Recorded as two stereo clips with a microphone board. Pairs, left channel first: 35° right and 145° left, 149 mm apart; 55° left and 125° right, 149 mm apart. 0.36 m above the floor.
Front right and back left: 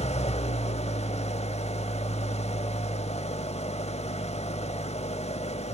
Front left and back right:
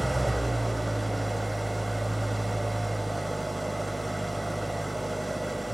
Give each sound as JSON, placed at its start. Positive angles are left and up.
{"t": 0.0, "sound": "an engine running", "azimuth_deg": -35, "distance_m": 0.7}